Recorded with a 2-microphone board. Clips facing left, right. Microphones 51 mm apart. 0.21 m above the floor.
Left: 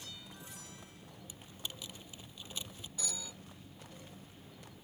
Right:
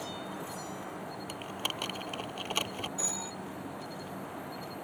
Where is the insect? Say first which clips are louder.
Right 12 dB; 90° right.